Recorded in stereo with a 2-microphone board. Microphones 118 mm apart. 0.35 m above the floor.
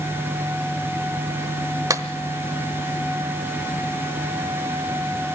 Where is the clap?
25° right (ahead or behind), 1.2 m.